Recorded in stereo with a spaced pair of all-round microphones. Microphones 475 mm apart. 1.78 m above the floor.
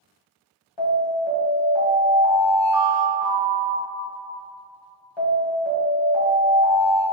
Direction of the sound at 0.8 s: 65° left (ahead or behind).